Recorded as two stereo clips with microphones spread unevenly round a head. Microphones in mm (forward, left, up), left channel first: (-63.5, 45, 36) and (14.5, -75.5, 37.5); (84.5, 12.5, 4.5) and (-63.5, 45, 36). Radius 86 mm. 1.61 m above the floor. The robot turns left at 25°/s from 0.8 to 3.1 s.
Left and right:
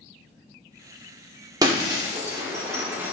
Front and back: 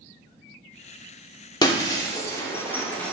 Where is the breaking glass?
75° right, 1.3 m; by 3.1 s 110° right, 1.3 m.